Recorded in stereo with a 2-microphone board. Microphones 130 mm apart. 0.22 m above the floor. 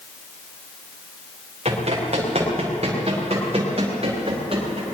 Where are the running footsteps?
50° right (ahead or behind), 5 m; by 4.8 s 45° right (ahead or behind), 7.5 m.